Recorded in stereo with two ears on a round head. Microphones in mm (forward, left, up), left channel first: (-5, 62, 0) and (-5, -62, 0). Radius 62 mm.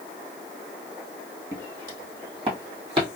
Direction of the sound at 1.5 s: 25° right (ahead or behind).